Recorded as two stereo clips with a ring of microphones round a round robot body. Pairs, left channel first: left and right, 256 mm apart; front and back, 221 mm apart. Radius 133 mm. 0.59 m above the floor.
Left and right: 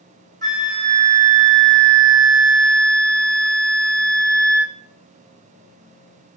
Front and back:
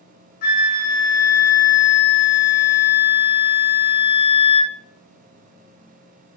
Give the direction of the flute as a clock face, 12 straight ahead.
1 o'clock.